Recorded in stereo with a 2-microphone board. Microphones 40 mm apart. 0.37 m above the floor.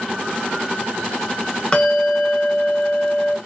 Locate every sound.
1.7 s a bell: 20° left (ahead or behind), 0.8 m